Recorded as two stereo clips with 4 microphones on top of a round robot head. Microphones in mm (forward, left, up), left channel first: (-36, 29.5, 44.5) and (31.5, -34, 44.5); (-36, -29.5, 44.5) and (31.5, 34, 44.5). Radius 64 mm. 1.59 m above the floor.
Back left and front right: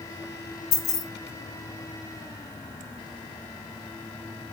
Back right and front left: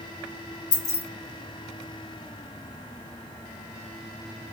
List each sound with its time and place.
0.7 s keys jangling: 175° right, 0.9 m